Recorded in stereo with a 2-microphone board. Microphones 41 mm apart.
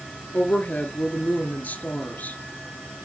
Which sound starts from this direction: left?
A woman speaking, at 0.3 s.